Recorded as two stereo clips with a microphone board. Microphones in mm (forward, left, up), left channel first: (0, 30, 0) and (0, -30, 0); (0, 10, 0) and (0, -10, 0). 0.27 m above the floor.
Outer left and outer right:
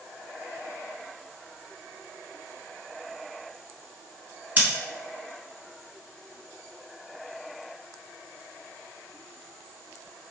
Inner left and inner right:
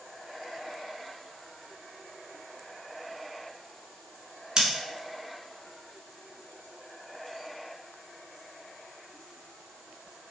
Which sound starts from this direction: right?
Scissors, at 4.6 s.